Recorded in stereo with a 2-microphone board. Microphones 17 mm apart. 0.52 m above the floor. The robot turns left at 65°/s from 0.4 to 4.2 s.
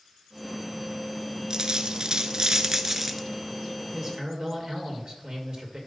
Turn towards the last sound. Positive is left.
turn(degrees=-45)  # may be behind; listen again after turning